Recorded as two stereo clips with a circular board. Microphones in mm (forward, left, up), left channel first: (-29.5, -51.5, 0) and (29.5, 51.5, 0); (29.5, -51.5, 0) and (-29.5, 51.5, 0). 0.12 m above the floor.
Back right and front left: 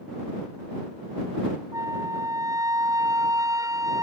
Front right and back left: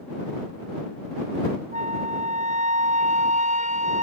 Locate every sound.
1.7 s a flute: 120° left